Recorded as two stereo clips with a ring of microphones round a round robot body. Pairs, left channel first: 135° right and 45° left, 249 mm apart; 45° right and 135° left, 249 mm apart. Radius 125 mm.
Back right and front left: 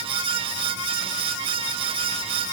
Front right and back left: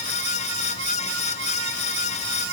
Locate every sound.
Only background noise.